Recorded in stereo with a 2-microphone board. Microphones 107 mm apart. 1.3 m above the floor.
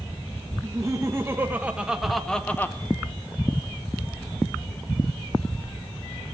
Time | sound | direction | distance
0.6 | laughter | 30° right (ahead or behind) | 1.4 m